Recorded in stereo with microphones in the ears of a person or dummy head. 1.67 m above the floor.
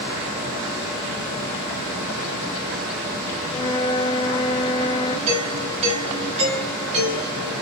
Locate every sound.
3.5 s a flute: 30° left (ahead or behind), 0.6 m
5.3 s a doorbell: 35° right (ahead or behind), 2.5 m